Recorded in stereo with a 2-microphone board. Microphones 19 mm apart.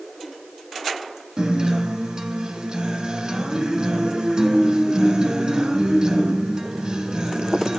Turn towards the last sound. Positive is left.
turn(degrees=-40)  # may be behind; listen again after turning